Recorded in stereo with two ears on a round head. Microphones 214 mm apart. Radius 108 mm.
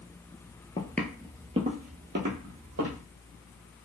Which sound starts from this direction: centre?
Footsteps, at 0.8 s.